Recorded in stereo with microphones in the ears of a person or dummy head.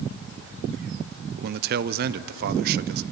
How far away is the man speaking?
About 0.5 m.